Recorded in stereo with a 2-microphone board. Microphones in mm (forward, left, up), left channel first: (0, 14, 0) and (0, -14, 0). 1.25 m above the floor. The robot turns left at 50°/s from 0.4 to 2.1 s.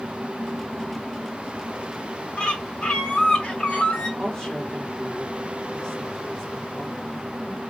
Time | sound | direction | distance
2.4 | a bird | 35° left (ahead or behind) | 1.6 m
4.2 | a woman speaking | 20° left (ahead or behind) | 2.5 m